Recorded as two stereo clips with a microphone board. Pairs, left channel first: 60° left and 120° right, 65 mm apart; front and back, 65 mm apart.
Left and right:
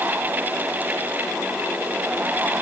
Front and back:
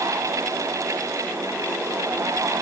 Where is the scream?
No scream in this recording.